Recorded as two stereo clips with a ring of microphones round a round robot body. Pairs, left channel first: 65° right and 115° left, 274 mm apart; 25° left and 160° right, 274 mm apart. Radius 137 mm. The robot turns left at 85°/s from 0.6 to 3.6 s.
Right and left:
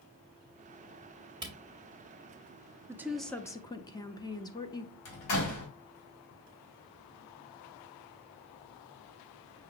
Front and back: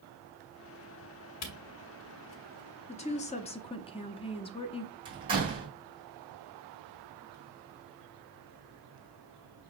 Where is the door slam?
85° right, 2.5 m.